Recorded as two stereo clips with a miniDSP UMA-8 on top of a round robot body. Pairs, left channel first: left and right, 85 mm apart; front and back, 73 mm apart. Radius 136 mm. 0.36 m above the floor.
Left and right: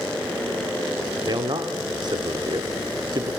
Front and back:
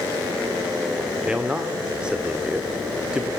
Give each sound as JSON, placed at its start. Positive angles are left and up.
{"t": 1.3, "sound": "a man speaking", "azimuth_deg": -105, "distance_m": 1.7}